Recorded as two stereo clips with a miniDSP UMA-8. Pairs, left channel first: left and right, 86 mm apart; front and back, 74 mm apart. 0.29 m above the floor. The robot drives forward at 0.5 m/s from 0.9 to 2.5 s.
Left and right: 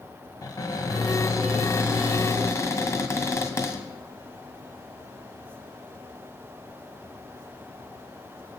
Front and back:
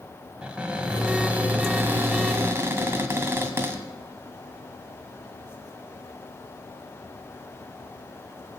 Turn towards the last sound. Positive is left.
turn(degrees=135)